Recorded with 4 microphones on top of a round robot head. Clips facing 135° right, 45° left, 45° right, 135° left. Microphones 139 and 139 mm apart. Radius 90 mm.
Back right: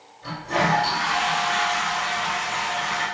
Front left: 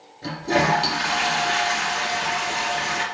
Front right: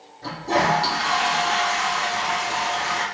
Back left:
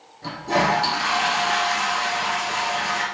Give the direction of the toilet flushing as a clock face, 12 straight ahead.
10 o'clock.